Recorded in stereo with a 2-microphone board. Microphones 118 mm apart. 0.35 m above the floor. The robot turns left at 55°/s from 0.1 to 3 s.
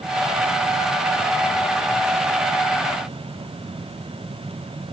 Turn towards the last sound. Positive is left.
No sound to turn to.